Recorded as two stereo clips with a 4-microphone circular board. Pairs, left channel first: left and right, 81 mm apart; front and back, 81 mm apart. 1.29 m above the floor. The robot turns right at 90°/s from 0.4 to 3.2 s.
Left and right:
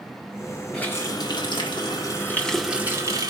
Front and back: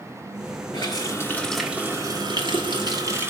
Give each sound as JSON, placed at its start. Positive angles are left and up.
{"t": 0.7, "sound": "a running tap", "azimuth_deg": 10, "distance_m": 1.8}